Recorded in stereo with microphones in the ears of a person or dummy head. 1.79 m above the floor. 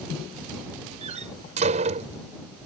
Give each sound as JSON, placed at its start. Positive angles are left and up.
{"t": 1.0, "sound": "a door slam", "side_deg": -40}